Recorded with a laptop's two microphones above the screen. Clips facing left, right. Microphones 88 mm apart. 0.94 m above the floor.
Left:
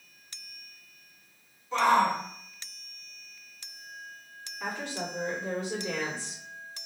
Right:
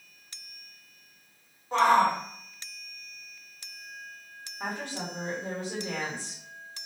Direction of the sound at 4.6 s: 50° right (ahead or behind).